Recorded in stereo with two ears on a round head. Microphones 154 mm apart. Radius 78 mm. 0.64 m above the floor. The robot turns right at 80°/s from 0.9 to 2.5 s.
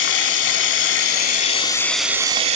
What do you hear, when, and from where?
0.0 s running water: 95° left, 1.0 m; by 2.6 s 140° right, 1.0 m